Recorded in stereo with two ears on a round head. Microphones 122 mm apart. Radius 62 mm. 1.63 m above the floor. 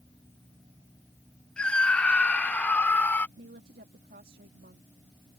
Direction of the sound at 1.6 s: 10° left (ahead or behind).